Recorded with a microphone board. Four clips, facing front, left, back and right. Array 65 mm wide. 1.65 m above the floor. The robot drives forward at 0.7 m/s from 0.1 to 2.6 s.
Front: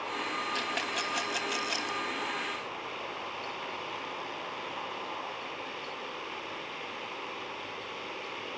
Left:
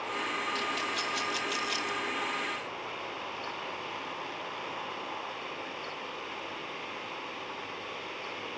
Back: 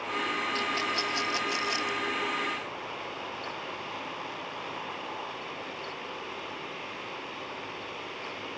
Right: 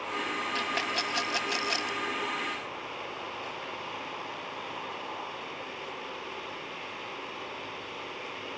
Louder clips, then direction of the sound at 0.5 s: Right 2 dB, back 3 dB; 65° right.